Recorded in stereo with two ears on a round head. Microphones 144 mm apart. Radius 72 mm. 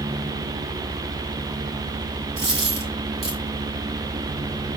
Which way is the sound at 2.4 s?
40° right (ahead or behind).